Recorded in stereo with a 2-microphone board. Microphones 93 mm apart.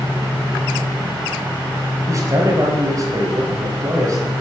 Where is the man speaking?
35° right (ahead or behind), 3 m.